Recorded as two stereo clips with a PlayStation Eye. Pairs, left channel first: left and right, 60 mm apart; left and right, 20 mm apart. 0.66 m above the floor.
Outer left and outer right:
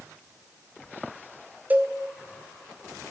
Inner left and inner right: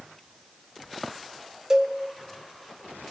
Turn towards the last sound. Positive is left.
turn(degrees=-25)  # may be behind; listen again after turning